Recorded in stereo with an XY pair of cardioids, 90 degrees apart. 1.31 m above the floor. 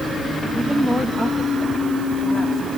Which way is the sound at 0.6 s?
5° right.